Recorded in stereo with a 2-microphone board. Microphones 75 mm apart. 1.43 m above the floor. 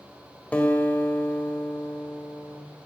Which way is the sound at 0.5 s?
20° left (ahead or behind).